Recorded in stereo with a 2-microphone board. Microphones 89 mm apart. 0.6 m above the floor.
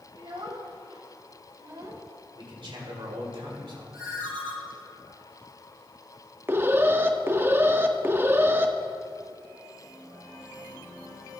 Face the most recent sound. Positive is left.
turn(degrees=-25)  # may be behind; listen again after turning